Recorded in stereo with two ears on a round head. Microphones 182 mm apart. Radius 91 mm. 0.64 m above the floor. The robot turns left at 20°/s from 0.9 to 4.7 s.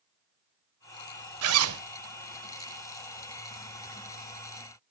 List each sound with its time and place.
1.4 s a zipper: 90° right, 1.2 m; by 1.8 s 85° right, 1.2 m